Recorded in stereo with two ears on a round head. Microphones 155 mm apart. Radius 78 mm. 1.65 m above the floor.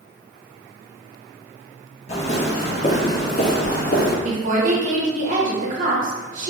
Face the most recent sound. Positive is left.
turn(degrees=-45)  # may be behind; listen again after turning